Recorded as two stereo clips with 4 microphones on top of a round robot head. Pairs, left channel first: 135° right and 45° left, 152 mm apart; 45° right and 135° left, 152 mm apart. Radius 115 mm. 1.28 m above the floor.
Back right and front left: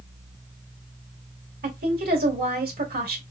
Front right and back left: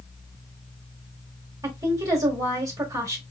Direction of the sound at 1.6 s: 65° left.